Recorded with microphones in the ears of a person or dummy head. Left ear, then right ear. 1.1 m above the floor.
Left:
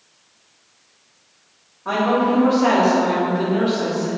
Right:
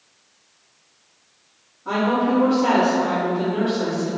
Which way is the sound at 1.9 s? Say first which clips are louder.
Left 2 dB; 45° left (ahead or behind).